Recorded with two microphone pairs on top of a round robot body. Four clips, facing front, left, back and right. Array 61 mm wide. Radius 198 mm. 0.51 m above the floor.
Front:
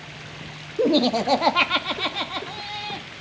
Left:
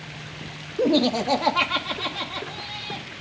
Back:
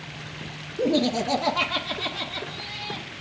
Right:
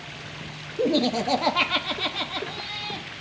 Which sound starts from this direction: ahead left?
Laughter, at 0.8 s.